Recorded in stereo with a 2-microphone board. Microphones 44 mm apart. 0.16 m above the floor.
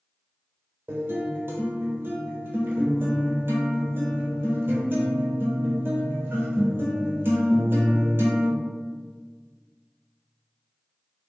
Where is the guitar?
50° right (ahead or behind), 1.1 m.